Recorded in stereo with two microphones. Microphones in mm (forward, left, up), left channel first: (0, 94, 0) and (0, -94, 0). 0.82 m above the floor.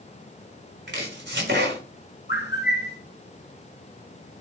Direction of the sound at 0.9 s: 75° right (ahead or behind).